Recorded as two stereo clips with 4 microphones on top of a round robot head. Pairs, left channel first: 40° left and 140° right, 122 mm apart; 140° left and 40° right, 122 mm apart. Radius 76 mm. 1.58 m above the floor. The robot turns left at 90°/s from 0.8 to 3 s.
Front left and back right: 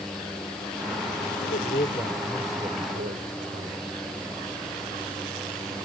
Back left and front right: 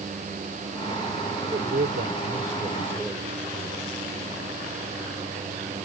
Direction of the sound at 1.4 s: 25° left.